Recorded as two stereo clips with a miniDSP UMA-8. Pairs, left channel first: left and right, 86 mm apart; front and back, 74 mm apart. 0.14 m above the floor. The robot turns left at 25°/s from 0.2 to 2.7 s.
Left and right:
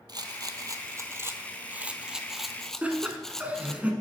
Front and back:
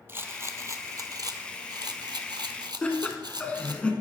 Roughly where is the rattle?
Behind right.